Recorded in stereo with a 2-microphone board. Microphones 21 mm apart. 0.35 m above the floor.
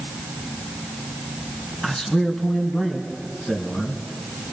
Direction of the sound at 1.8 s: 50° left (ahead or behind).